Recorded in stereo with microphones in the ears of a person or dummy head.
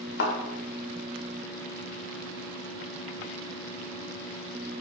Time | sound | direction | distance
0.2 | a thud | 60° left (ahead or behind) | 1.6 m